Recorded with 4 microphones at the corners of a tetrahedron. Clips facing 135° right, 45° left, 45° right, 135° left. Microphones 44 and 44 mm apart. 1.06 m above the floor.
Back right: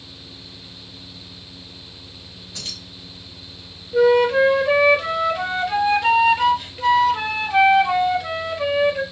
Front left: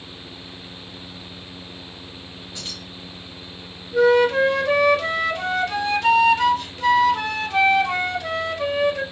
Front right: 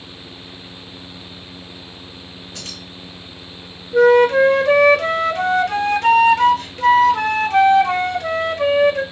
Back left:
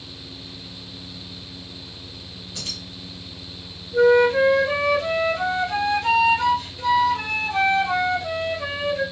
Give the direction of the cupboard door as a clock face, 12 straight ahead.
No cupboard door in this recording.